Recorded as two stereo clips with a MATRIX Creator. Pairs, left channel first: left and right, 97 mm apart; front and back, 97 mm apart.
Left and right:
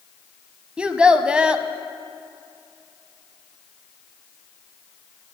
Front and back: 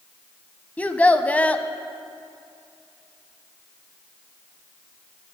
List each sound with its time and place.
0.8 s a child speaking: 35° right, 0.6 m